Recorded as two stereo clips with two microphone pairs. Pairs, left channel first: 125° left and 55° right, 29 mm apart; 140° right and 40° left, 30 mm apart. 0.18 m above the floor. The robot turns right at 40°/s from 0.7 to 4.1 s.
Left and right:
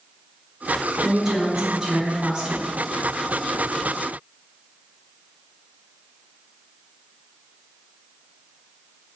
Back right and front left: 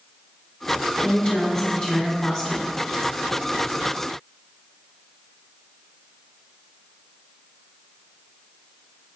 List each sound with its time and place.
1.0 s a woman speaking: 100° right, 1.3 m; by 2.6 s 35° right, 1.3 m